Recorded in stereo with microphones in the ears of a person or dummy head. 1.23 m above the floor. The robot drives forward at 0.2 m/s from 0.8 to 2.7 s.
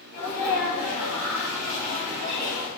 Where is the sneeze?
55° right (ahead or behind), 1.5 m; by 2.7 s 45° right (ahead or behind), 1.7 m.